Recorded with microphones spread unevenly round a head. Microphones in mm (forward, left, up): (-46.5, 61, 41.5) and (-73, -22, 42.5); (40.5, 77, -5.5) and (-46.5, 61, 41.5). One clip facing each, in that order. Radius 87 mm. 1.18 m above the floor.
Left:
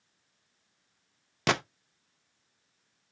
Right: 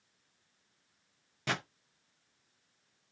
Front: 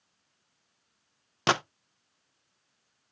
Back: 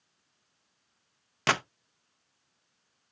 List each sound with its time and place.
1.5 s a gunshot: 80° left, 0.7 m